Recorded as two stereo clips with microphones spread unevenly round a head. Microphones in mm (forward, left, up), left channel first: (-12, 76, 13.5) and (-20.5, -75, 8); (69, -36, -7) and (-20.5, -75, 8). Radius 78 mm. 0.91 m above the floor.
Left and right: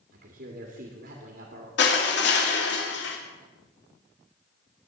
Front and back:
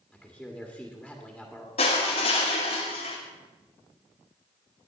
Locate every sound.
0.1 s a man speaking: 65° right, 2 m
1.8 s crushing: 70° left, 2.5 m